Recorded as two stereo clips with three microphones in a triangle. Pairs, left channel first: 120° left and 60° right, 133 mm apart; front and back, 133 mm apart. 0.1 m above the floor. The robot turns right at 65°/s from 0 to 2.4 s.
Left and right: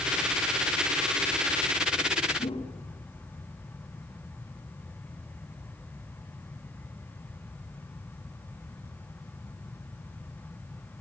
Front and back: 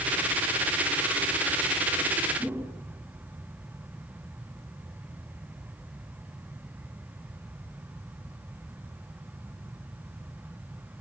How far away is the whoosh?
About 3 m.